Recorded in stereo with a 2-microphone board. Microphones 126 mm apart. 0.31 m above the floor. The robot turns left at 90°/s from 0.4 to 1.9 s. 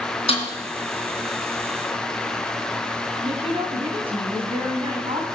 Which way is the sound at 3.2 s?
45° right (ahead or behind).